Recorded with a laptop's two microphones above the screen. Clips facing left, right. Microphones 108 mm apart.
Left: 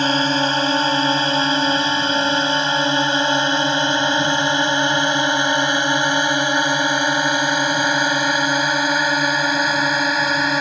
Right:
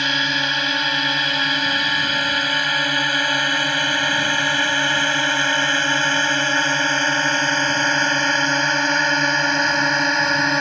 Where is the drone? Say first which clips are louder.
Left 6 dB; 35° left (ahead or behind); by 10.6 s 5° left (ahead or behind).